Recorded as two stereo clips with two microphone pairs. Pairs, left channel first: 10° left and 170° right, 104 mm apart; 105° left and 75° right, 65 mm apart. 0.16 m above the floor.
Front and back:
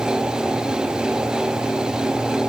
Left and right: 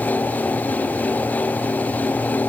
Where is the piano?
I don't hear a piano.